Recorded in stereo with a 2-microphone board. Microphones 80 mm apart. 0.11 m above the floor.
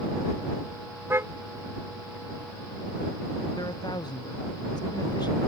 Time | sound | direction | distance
1.1 | a car horn | 30° right (ahead or behind) | ?
3.5 | a man speaking | 60° left (ahead or behind) | ?